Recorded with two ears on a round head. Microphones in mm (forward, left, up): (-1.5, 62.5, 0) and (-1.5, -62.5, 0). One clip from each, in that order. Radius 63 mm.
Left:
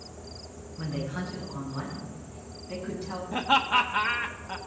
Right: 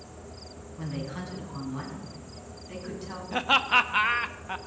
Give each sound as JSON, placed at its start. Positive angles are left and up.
{"t": 0.8, "sound": "a woman speaking", "side_deg": -65, "distance_m": 8.0}
{"t": 3.3, "sound": "laughter", "side_deg": -45, "distance_m": 1.0}